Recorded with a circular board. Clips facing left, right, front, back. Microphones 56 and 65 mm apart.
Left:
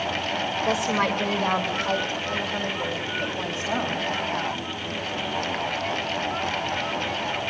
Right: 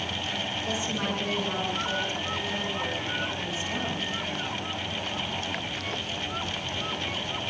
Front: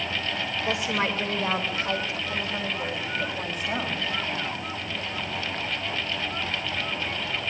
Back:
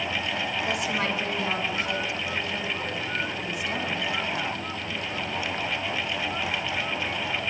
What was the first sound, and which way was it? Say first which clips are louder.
A woman speaking: left 9 dB, front 3 dB; 65° left.